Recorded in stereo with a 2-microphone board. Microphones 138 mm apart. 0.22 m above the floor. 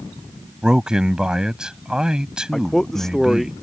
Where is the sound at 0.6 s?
5° right (ahead or behind).